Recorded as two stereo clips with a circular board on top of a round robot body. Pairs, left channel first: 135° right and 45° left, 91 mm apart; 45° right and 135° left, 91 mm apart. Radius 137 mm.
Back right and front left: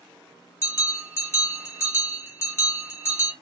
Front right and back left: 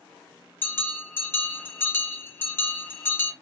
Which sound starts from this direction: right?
A bell, at 0.6 s.